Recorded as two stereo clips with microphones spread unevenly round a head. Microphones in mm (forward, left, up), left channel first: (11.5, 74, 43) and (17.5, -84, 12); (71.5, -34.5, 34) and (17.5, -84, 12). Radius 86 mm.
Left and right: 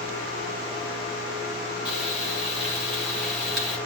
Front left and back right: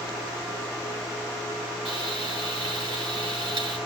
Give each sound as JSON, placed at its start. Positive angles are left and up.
{"t": 1.9, "sound": "frying", "azimuth_deg": -175, "distance_m": 4.0}